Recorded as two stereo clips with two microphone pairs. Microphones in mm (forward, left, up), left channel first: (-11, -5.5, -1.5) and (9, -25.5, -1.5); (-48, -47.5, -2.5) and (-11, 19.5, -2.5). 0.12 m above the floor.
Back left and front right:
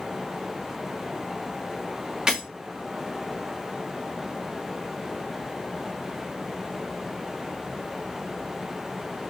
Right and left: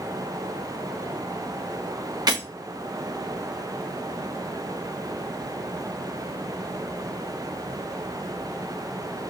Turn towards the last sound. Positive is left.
turn(degrees=25)